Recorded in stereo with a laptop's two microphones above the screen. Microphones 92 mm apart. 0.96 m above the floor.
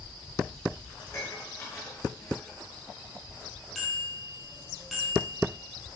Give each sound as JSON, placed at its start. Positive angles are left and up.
{"t": 1.0, "sound": "dishes clattering", "side_deg": 40, "distance_m": 8.5}
{"t": 3.8, "sound": "a bicycle bell", "side_deg": 0, "distance_m": 6.5}